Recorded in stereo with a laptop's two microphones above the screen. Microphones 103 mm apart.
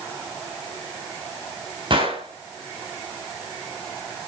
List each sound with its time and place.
1.9 s a gunshot: 55° right (ahead or behind), 3.5 m